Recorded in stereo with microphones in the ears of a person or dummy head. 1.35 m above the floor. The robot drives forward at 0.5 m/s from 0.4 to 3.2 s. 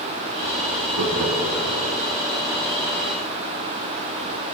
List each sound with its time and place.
0.9 s laughter: 65° right (ahead or behind), 2.0 m; by 1.8 s 75° right (ahead or behind), 1.8 m